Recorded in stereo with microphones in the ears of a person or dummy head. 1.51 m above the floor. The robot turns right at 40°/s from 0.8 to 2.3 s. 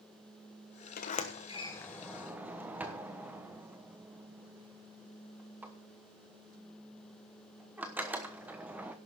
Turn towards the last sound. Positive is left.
turn(degrees=-10)  # may be behind; listen again after turning